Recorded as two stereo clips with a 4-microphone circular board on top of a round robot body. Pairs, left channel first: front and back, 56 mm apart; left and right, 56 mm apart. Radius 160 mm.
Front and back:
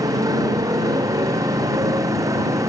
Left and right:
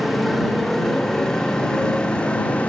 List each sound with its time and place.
0.0 s a motorcycle: straight behind; by 2.7 s 160° left